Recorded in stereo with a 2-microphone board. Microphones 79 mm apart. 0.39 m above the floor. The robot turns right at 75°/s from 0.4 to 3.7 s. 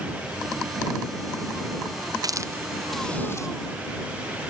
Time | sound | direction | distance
2.2 | a hiss | 50° right (ahead or behind) | ?